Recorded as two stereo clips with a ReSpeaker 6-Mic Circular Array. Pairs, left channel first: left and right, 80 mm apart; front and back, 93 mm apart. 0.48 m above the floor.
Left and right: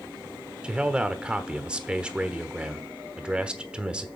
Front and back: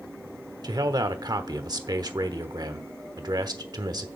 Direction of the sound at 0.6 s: 165° right.